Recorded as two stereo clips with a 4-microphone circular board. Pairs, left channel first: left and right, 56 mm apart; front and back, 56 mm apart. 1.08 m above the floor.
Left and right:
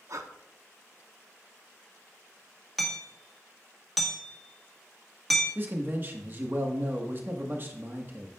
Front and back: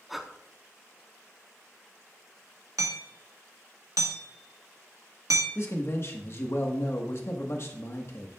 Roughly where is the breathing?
Right.